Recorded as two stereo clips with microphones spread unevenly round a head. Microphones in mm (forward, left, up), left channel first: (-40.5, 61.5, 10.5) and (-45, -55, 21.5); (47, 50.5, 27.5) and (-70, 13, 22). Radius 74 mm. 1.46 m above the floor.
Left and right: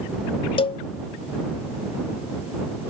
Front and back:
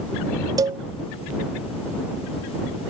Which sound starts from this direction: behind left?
A cowbell, at 0.6 s.